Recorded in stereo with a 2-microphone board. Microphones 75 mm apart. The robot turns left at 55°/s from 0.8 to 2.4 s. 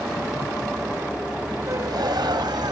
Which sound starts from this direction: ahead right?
A gasp, at 1.7 s.